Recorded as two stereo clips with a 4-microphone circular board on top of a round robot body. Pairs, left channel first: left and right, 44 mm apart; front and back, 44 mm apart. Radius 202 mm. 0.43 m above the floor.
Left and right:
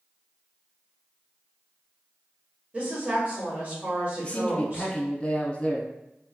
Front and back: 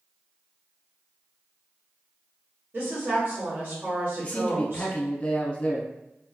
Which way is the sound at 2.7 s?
165° right.